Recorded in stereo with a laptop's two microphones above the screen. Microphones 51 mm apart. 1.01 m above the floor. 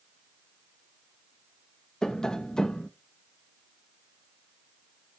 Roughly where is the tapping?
Centre.